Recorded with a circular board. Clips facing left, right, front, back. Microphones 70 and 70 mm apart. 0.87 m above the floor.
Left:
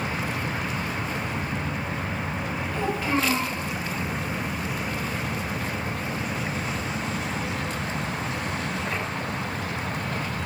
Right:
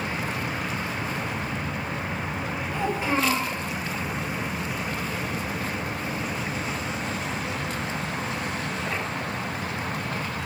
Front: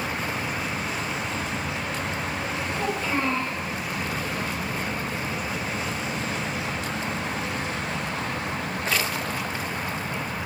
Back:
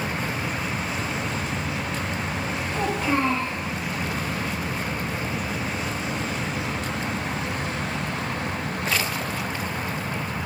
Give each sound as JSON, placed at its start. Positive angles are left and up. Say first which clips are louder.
{"t": 2.7, "sound": "a child speaking", "louder": "even, back 4 dB", "azimuth_deg": -160, "distance_m": 1.0}